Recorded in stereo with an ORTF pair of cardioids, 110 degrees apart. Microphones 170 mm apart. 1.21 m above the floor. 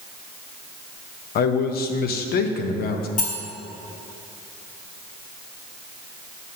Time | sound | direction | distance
1.4 | a man speaking | 65° left | 0.9 m
3.2 | cutlery clinking | 50° left | 2 m